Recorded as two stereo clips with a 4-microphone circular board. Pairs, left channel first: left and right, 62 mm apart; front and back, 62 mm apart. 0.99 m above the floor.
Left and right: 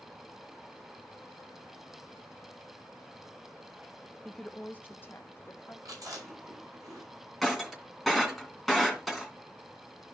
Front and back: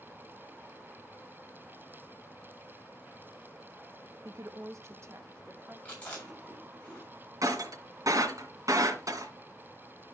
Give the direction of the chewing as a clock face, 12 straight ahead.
2 o'clock.